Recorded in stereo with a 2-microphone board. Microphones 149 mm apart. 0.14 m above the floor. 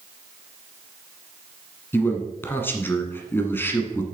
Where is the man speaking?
15° left (ahead or behind), 1.1 m.